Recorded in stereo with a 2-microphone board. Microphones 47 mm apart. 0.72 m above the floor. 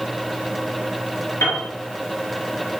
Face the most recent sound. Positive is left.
turn(degrees=65)  # may be behind; listen again after turning